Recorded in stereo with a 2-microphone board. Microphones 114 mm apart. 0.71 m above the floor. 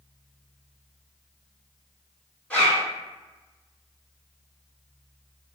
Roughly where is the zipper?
Centre.